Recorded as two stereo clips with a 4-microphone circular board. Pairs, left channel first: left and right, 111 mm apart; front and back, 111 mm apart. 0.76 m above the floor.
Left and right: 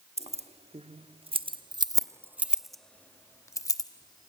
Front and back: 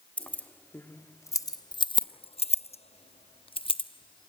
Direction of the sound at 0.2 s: 80° right.